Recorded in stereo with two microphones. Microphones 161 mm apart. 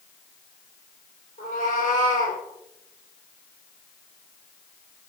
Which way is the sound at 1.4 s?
50° left (ahead or behind).